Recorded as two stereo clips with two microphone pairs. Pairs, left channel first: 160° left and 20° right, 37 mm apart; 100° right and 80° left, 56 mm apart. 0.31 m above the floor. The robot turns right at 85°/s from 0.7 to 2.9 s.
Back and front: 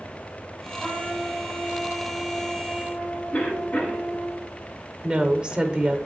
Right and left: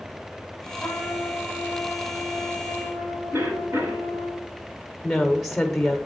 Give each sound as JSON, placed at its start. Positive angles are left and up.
{"t": 0.8, "sound": "a trumpet", "azimuth_deg": -120, "distance_m": 3.5}
{"t": 3.3, "sound": "a cough", "azimuth_deg": 115, "distance_m": 3.5}
{"t": 5.0, "sound": "a woman speaking", "azimuth_deg": -20, "distance_m": 0.9}